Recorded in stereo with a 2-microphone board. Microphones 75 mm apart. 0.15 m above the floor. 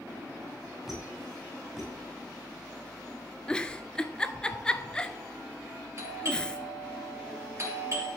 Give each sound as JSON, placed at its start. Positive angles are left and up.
{"t": 0.9, "sound": "a squeak", "side_deg": 0, "distance_m": 6.0}
{"t": 3.5, "sound": "a giggle", "side_deg": 15, "distance_m": 0.6}
{"t": 6.0, "sound": "a doorbell", "side_deg": -40, "distance_m": 3.5}